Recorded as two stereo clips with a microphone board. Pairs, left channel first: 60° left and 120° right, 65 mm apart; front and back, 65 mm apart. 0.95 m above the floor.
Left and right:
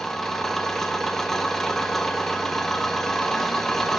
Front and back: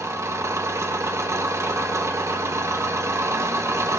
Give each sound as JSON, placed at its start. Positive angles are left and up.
{"t": 0.0, "sound": "an engine running", "azimuth_deg": 145, "distance_m": 0.7}